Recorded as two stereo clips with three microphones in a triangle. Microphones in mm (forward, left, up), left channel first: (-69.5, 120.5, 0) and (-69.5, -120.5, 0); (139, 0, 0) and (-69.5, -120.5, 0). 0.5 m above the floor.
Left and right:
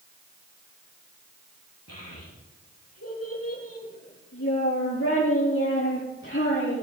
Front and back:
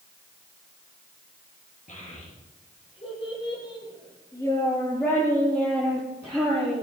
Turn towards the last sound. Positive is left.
turn(degrees=135)